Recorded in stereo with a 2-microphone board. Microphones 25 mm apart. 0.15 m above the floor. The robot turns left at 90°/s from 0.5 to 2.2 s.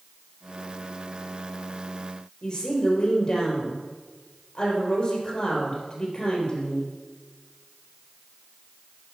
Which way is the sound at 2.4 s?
30° left (ahead or behind).